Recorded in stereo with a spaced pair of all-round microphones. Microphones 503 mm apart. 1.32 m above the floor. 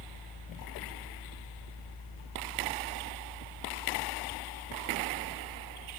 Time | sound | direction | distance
0.0 | a fan | 60° left (ahead or behind) | 4 m